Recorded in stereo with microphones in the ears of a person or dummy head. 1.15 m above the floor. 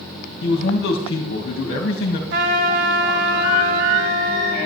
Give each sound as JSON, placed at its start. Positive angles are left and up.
{"t": 0.4, "sound": "a man speaking", "side_deg": 55, "distance_m": 1.5}
{"t": 2.3, "sound": "a trumpet", "side_deg": -70, "distance_m": 3.0}